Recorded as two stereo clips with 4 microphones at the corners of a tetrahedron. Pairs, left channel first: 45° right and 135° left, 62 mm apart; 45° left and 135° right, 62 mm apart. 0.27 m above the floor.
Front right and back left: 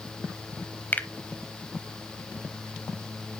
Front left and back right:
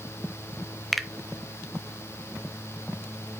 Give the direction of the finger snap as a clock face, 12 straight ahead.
2 o'clock.